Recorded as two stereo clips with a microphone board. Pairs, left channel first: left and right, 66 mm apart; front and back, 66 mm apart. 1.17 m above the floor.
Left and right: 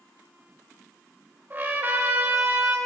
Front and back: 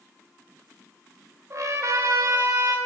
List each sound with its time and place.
1.5 s a trumpet: 140° right, 0.9 m